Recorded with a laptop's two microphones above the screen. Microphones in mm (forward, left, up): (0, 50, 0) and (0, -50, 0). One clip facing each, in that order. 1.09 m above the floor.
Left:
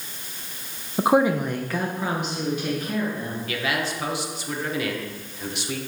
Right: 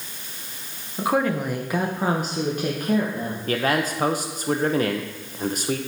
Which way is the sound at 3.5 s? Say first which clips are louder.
Right 6 dB; 40° right (ahead or behind).